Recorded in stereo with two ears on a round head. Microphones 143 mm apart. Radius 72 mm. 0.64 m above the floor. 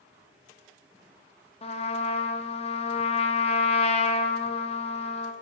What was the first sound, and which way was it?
A trumpet, 40° left (ahead or behind).